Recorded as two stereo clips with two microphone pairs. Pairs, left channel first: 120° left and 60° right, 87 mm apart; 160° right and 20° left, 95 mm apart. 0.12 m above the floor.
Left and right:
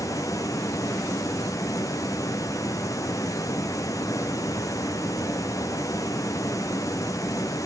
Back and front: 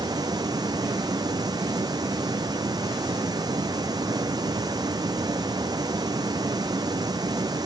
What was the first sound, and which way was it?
Running water, 70° left.